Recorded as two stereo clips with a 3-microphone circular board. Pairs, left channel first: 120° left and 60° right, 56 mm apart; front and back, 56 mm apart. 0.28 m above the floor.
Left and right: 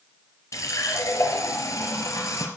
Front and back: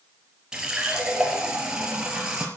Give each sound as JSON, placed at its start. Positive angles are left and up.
{"t": 0.5, "sound": "a running tap", "azimuth_deg": 105, "distance_m": 3.0}